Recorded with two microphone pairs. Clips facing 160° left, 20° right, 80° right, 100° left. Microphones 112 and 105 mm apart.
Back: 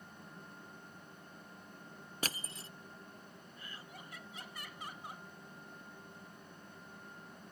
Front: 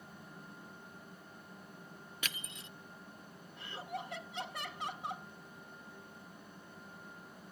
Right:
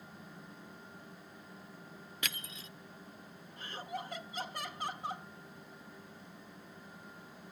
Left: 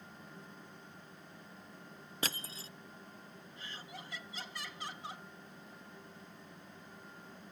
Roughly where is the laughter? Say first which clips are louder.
Front 12 dB, right 9 dB; ahead right.